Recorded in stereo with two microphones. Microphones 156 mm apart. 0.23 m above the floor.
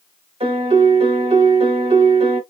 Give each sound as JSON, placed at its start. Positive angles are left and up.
{"t": 0.4, "sound": "a piano", "side_deg": -35, "distance_m": 1.2}